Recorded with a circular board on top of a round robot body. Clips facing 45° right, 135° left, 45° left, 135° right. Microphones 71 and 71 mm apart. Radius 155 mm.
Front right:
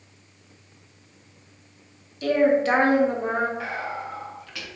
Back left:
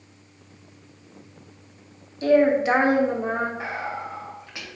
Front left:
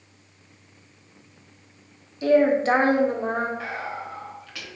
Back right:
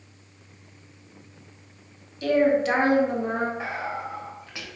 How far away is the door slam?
No door slam in this recording.